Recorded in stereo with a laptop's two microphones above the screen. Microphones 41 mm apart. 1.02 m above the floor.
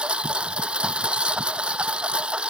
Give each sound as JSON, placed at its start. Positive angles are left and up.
{"t": 0.0, "sound": "a lawn mower", "side_deg": -25}